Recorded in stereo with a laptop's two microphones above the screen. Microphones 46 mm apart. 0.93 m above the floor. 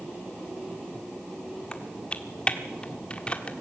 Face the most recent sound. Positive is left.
turn(degrees=25)  # may be behind; listen again after turning